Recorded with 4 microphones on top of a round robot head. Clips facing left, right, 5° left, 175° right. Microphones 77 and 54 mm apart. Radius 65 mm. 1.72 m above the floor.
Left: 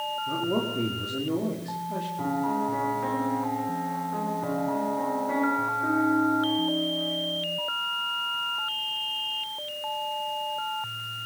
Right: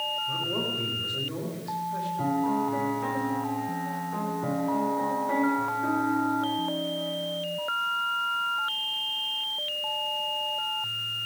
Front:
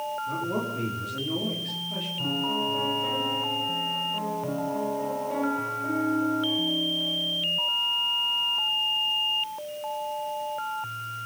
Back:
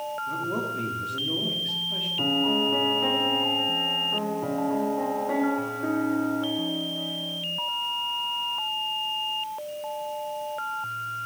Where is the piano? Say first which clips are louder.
Right 1 dB, back 4 dB; straight behind, 6.5 m.